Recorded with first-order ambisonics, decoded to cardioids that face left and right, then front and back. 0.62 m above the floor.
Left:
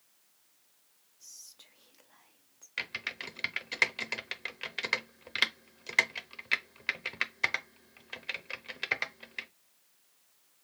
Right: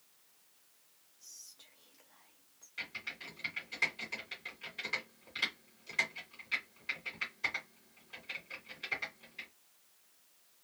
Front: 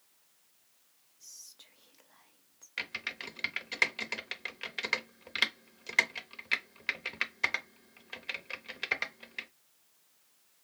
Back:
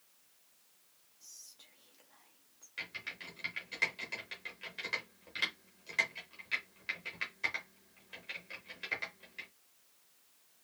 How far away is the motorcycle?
No motorcycle in this recording.